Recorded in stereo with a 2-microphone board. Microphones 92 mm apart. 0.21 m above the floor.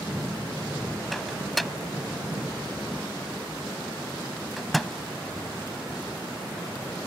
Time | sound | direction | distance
1.1 | a microwave | centre (ahead or behind) | ?